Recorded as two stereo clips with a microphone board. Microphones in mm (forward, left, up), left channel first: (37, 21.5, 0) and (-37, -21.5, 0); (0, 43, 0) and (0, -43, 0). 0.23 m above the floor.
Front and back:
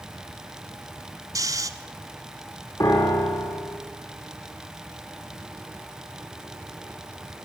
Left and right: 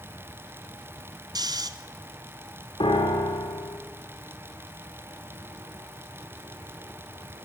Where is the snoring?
110° right, 1.0 m.